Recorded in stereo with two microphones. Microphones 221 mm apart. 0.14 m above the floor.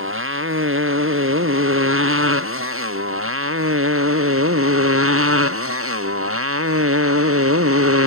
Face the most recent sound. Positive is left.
turn(degrees=-85)